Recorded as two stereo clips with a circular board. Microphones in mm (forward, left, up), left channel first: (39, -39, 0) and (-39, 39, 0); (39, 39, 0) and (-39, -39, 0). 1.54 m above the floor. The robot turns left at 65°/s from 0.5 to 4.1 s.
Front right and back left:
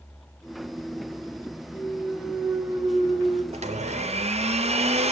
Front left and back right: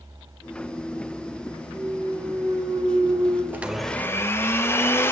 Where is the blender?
150° left, 0.7 m; by 5.1 s 115° left, 0.7 m.